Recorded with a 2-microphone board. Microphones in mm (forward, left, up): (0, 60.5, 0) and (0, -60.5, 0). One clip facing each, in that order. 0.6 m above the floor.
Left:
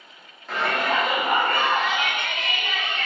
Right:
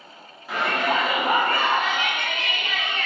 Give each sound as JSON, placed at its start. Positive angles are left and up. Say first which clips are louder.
{"t": 0.5, "sound": "a shout", "louder": "right 1 dB", "side_deg": -10, "distance_m": 0.8}